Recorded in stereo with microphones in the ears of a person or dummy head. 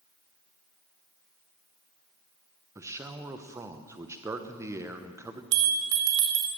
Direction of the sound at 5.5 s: 70° right (ahead or behind).